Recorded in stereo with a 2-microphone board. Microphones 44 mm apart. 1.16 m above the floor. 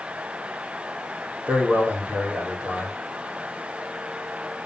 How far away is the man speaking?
About 3 m.